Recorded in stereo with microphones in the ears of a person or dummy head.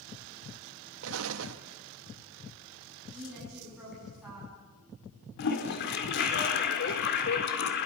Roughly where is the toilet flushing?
Left.